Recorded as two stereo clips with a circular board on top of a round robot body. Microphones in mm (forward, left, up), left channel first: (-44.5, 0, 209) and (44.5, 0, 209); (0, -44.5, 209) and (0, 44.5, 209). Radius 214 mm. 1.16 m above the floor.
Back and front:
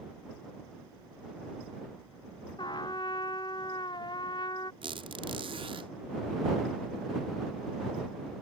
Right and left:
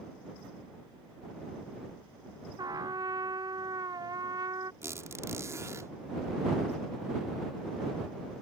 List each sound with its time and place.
2.6 s a trumpet: 140° left
4.8 s a squeak: 30° left